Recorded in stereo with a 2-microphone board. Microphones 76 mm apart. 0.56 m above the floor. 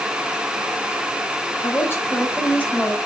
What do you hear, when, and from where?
1.6 s a woman speaking: 35° left (ahead or behind), 4 m; by 3.0 s 15° left (ahead or behind), 3.5 m